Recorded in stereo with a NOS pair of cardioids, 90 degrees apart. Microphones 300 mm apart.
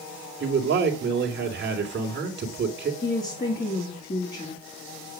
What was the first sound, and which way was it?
A man speaking, 35° right.